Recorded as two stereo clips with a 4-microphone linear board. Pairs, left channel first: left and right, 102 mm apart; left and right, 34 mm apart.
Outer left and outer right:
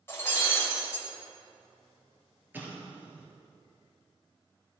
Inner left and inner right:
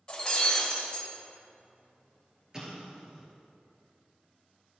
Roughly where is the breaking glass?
Left.